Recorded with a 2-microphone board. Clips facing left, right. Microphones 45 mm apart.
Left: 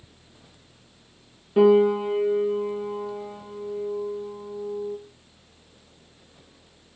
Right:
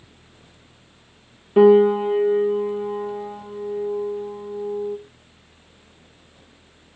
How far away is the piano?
About 2 m.